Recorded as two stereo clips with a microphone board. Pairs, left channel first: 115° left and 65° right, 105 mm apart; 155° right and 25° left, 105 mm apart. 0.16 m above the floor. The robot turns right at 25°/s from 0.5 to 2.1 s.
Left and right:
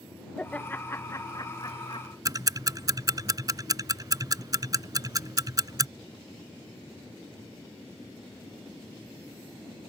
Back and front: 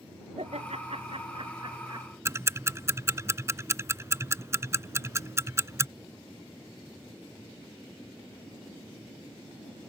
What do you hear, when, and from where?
0.4 s laughter: 35° left; by 2.1 s 75° left
2.2 s ticking: 30° right